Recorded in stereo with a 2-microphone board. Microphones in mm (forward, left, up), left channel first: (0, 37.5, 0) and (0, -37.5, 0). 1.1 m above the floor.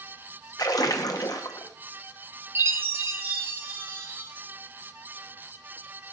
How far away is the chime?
About 0.7 m.